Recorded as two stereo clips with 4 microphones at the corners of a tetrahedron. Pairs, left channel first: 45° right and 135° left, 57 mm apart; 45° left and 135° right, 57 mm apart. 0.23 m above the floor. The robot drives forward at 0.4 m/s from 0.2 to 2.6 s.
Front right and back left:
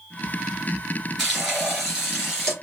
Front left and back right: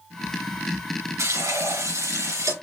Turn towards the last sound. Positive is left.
turn(degrees=-145)